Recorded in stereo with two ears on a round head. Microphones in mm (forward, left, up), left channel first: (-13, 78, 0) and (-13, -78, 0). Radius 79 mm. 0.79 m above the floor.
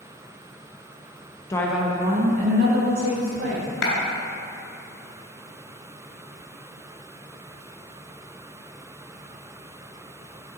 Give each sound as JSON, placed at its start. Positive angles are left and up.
{"t": 1.5, "sound": "a woman speaking", "side_deg": 20, "distance_m": 0.9}
{"t": 3.8, "sound": "a clap", "side_deg": 70, "distance_m": 2.5}